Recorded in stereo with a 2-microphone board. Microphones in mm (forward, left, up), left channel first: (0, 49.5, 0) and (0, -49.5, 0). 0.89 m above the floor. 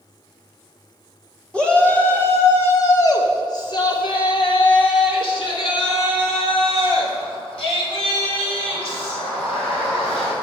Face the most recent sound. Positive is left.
turn(degrees=75)  # may be behind; listen again after turning